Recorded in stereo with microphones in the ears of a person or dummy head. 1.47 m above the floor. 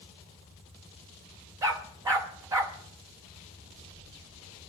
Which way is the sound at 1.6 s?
10° right (ahead or behind).